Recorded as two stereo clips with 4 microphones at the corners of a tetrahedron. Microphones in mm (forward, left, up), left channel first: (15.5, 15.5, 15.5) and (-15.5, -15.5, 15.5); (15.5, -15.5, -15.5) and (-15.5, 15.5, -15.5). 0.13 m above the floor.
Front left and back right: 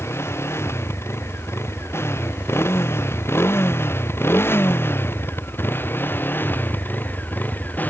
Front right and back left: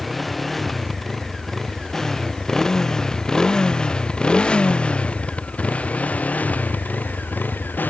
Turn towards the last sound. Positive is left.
turn(degrees=-5)